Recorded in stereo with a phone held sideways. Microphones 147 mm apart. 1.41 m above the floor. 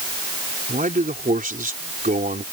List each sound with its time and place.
0.7 s a man speaking: 65° right (ahead or behind)